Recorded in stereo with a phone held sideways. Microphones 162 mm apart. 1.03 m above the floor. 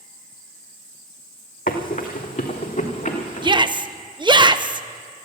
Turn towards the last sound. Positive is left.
turn(degrees=-30)  # may be behind; listen again after turning